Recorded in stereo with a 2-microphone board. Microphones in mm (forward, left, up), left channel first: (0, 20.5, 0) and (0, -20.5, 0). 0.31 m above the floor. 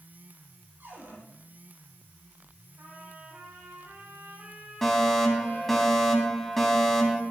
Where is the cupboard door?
60° right (ahead or behind), 7 m.